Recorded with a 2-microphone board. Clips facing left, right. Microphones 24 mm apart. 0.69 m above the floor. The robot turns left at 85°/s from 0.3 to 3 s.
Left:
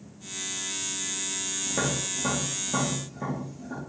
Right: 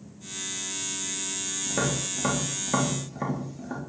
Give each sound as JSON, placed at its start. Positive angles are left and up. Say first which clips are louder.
{"t": 1.7, "sound": "tapping", "louder": "right 1 dB", "side_deg": 0, "distance_m": 1.0}